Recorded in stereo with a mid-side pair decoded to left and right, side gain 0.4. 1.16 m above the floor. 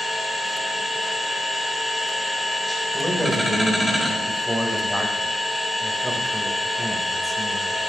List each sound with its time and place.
0.0 s a machine running: straight ahead, 8 m
2.9 s a man speaking: 5° right, 4.5 m